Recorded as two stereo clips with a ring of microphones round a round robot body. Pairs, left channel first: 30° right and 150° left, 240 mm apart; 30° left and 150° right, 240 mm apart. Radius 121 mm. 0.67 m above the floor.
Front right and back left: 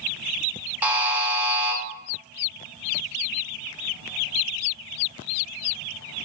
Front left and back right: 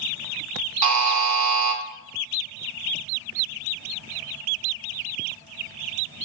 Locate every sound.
0.8 s a buzzer: 125° right, 0.6 m